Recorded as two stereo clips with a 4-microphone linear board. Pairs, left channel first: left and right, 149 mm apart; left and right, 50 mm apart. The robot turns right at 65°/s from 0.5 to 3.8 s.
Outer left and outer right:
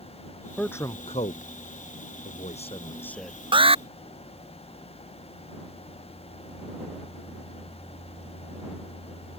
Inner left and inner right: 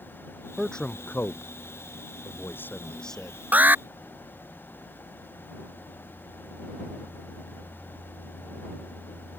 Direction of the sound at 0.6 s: 5° left (ahead or behind).